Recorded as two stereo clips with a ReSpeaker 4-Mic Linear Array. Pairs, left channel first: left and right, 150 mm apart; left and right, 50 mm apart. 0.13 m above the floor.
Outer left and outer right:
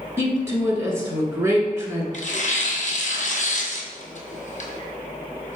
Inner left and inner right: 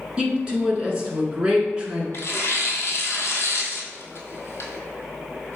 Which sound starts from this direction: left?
Tearing paper, at 2.1 s.